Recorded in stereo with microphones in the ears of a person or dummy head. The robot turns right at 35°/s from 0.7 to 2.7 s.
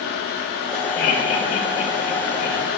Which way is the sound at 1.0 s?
55° left (ahead or behind).